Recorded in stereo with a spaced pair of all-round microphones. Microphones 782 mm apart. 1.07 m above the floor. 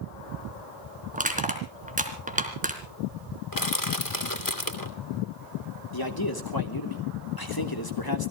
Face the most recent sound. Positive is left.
turn(degrees=25)  # may be behind; listen again after turning